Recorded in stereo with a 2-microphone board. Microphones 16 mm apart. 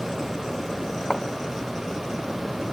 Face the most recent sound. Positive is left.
turn(degrees=45)  # may be behind; listen again after turning